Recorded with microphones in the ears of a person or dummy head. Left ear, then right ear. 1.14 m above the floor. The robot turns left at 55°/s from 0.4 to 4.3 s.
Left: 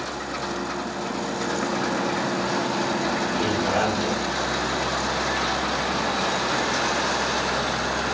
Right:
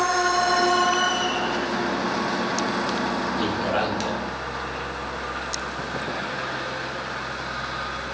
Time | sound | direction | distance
3.4 | a man speaking | 30° right | 0.7 m